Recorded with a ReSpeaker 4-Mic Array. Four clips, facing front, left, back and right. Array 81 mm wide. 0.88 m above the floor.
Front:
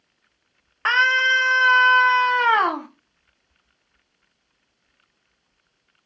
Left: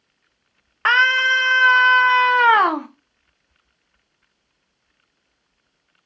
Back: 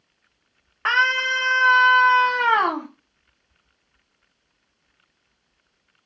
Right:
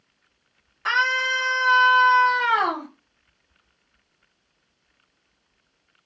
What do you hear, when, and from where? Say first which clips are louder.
0.8 s a scream: left 6 dB, front 2 dB; 85° left, 0.7 m